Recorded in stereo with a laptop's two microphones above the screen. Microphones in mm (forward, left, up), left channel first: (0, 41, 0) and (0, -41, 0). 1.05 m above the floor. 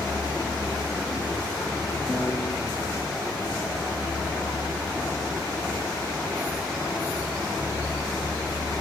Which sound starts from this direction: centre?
A piano, at 2.1 s.